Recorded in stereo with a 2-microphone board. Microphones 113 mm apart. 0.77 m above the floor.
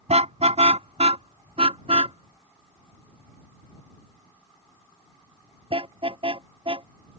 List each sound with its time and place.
0.1 s a car horn: 75° right (ahead or behind); by 6.9 s 50° right (ahead or behind)